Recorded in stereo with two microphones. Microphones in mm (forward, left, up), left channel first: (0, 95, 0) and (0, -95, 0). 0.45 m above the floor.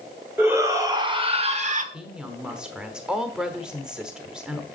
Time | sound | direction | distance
0.4 | a shout | 10° right (ahead or behind) | 1.4 m
1.9 | a woman speaking | 5° right (ahead or behind) | 1.1 m